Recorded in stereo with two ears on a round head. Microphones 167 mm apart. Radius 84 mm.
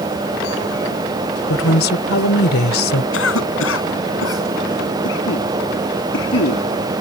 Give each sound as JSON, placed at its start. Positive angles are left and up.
{"t": 1.5, "sound": "a woman speaking", "side_deg": 80}
{"t": 3.1, "sound": "a cough", "side_deg": 85}